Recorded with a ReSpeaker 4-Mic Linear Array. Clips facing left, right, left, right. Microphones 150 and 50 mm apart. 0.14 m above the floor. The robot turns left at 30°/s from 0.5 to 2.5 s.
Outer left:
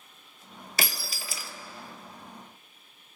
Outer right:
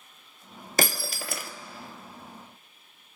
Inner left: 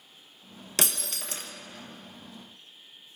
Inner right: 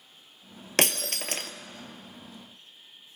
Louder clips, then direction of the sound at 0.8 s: Outer right 7 dB, inner right 6 dB; 45° right (ahead or behind).